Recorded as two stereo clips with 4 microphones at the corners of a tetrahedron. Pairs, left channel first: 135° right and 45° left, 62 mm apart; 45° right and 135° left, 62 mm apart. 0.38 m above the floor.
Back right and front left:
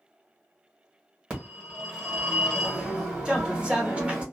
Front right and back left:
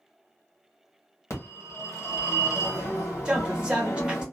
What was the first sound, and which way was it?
A phone ringing, 25° right.